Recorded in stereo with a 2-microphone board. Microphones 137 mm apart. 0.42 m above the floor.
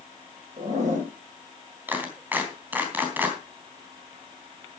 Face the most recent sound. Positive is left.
turn(degrees=-15)  # may be behind; listen again after turning